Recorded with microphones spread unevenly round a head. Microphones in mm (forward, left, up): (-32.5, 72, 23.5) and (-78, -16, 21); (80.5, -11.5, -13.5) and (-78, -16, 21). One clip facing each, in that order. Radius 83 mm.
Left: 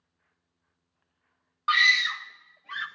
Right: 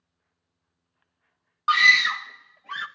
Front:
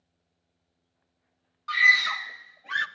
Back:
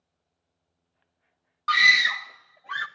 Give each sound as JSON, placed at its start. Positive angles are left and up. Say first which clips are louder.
{"t": 1.7, "sound": "a scream", "louder": "right 4 dB, back 3 dB", "azimuth_deg": -170, "distance_m": 0.6}